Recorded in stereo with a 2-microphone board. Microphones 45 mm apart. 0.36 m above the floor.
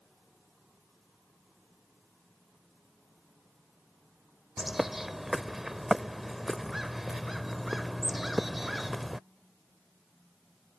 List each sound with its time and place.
4.6 s a bird: 5° right (ahead or behind)